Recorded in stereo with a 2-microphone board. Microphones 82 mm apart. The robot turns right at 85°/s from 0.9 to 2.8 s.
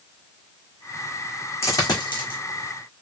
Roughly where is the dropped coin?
Left.